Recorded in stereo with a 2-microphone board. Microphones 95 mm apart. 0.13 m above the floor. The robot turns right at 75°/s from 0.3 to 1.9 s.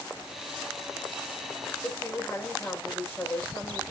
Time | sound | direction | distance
1.8 | a woman speaking | 10° left (ahead or behind) | 6.5 m